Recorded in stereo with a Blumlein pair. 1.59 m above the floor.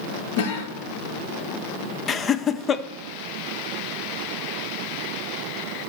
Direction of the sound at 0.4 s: 55° left.